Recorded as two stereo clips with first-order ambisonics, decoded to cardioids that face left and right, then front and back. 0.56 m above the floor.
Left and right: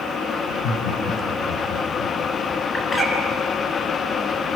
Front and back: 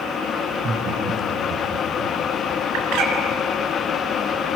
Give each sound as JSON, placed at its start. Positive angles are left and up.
{"t": 0.5, "sound": "laughter", "azimuth_deg": 120, "distance_m": 4.5}
{"t": 2.7, "sound": "a bird", "azimuth_deg": 170, "distance_m": 3.5}